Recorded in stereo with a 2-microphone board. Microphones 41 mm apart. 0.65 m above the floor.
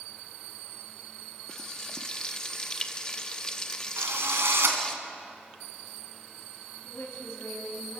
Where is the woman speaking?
50° left (ahead or behind), 3.5 m.